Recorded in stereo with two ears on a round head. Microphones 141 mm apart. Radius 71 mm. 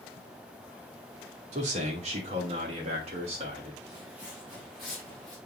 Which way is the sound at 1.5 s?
45° right (ahead or behind).